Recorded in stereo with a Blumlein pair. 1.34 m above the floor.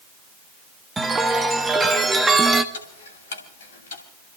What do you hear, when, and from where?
1.0 s a chime: 10° right, 1.2 m
2.7 s ticking: 60° left, 2.5 m